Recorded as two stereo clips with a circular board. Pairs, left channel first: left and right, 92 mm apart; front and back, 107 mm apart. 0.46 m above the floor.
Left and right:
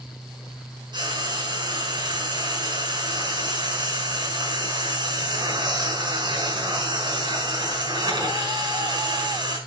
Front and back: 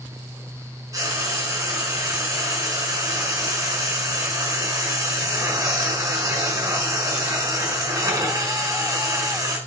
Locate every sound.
0.9 s frying: 120° right, 6 m